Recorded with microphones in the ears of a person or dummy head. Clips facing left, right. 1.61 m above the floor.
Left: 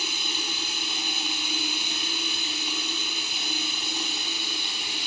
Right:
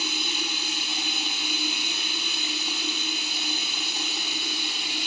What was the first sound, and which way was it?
Running water, 65° right (ahead or behind).